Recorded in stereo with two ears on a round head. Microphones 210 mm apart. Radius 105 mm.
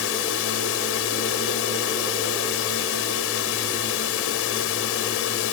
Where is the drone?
65° left (ahead or behind).